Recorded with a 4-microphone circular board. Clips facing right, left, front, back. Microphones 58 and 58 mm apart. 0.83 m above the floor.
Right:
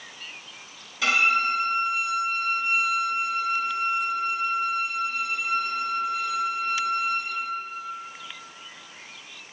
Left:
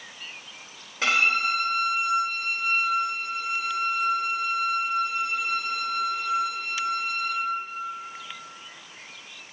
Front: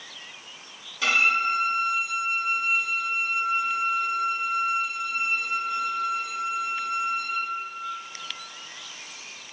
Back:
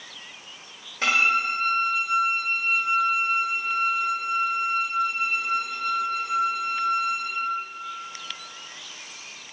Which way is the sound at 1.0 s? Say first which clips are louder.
Right 1 dB, even; 135° left.